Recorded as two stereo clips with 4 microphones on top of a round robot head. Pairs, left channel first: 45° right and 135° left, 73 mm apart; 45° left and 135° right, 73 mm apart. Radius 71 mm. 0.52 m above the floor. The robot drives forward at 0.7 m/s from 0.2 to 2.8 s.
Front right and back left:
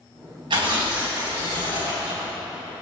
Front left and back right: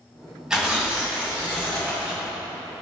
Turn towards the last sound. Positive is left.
turn(degrees=160)